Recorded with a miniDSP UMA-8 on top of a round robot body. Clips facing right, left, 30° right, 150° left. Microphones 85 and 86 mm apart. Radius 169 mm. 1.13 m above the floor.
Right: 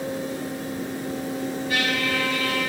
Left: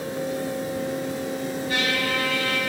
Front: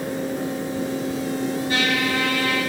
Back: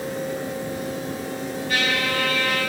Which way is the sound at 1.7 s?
35° left.